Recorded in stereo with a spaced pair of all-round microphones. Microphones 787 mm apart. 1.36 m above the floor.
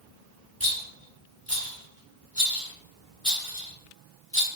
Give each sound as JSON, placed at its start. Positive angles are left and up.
{"t": 0.6, "sound": "a rattle", "side_deg": 15, "distance_m": 2.0}